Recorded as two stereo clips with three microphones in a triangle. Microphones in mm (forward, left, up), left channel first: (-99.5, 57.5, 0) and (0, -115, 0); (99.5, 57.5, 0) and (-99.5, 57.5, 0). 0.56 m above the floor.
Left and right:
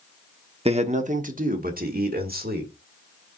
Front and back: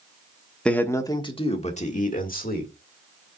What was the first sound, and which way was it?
A man speaking, 80° right.